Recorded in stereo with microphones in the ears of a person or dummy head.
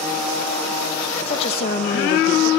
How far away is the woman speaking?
About 0.7 m.